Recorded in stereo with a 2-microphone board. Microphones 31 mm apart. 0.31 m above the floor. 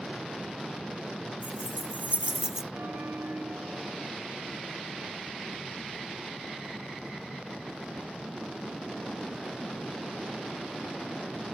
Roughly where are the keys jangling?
Right.